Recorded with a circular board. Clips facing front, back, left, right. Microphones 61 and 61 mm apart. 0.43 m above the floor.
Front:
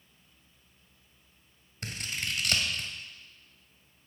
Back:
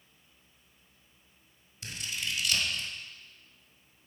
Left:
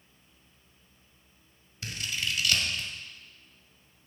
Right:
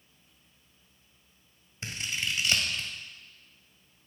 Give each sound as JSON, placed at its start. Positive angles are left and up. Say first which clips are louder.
{"t": 1.8, "sound": "scissors", "louder": "front 1 dB, even", "azimuth_deg": -30, "distance_m": 1.8}